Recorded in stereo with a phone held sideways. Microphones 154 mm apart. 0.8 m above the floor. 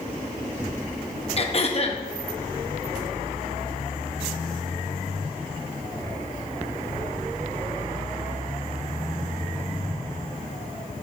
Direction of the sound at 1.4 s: 40° left (ahead or behind).